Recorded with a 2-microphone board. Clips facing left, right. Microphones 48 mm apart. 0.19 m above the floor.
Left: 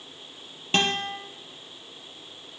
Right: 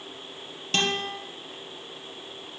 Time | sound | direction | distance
0.7 | a guitar | 20° left (ahead or behind) | 3.5 m